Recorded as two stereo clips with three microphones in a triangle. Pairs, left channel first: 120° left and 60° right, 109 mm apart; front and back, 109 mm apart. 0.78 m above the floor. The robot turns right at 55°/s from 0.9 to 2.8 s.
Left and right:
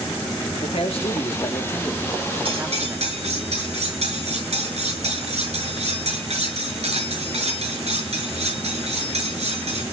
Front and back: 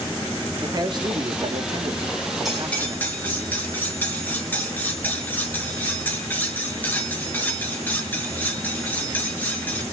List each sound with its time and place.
0.6 s a man speaking: 135° left, 1.9 m; by 3.5 s 120° right, 1.9 m
2.5 s cutlery clinking: 95° right, 6.5 m; by 9.8 s 75° right, 6.5 m